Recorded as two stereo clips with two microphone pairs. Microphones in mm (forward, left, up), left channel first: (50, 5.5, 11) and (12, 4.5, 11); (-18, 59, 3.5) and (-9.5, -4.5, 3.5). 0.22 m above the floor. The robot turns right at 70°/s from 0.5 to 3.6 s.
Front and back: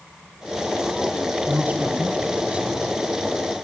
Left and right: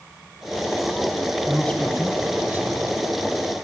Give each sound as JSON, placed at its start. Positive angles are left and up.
{"t": 1.5, "sound": "a man speaking", "azimuth_deg": 150, "distance_m": 2.0}